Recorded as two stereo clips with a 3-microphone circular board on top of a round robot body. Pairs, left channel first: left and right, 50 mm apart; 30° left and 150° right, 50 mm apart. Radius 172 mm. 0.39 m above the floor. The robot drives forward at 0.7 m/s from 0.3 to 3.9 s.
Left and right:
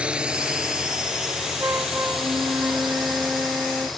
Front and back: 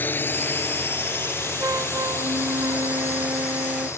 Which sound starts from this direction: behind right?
A flute, at 1.6 s.